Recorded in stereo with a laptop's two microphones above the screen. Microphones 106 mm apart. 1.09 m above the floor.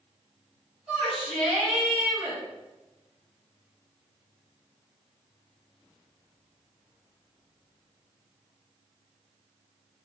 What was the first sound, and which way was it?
A shout, 10° right (ahead or behind).